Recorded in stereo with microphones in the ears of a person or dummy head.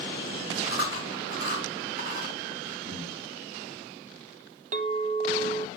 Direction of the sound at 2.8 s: 30° right (ahead or behind).